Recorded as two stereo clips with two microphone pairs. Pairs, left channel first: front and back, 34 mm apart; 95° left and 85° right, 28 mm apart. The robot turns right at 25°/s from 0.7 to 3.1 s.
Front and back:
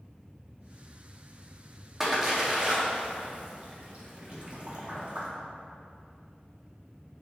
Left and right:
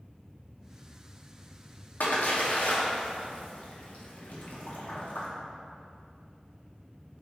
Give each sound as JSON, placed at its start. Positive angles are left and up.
{"t": 2.0, "sound": "a splash", "azimuth_deg": 100, "distance_m": 0.6}